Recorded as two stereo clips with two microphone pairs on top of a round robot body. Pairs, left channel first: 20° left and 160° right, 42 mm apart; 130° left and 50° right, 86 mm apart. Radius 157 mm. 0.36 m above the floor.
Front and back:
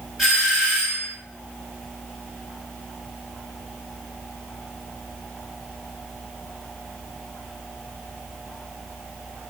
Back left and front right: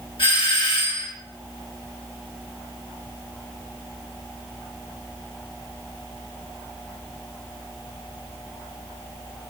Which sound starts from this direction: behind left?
A doorbell, at 0.2 s.